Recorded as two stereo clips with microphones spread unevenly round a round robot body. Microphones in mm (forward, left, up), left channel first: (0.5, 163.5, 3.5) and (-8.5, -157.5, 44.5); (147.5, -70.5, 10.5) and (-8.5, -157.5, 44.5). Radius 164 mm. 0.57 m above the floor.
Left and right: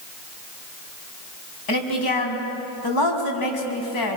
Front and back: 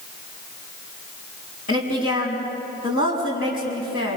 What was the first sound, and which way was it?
A woman speaking, 75° left.